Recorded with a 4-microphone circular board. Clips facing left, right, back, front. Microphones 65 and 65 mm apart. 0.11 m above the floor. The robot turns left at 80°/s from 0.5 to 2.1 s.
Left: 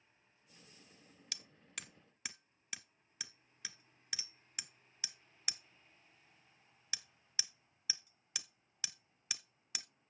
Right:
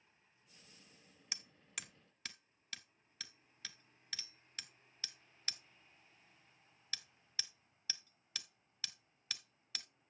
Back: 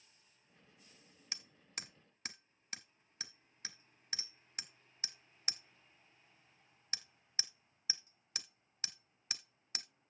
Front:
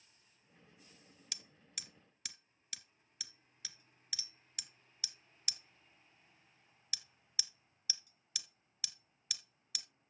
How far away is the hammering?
About 0.5 m.